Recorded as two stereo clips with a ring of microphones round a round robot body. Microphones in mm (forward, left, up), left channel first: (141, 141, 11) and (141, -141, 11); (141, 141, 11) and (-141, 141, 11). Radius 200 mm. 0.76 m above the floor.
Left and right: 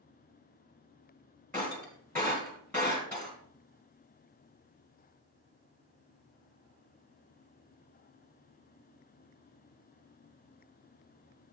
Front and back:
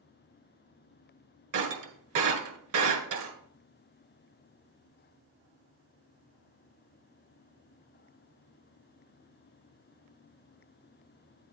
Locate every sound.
1.5 s breaking glass: 175° left, 1.7 m